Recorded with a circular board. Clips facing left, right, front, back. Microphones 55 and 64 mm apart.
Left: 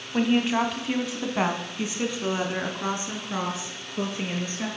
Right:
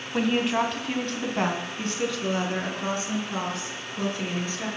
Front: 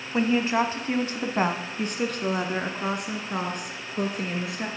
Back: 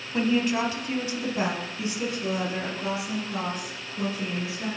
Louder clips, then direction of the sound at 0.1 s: Left 1 dB, front 1 dB; 5° right.